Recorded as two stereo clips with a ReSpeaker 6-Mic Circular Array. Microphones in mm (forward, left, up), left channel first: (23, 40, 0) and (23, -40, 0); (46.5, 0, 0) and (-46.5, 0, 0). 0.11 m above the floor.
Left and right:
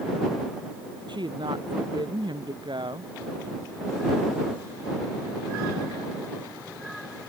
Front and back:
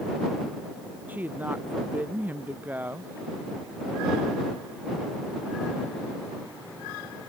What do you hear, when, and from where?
1.1 s a woman speaking: 110° right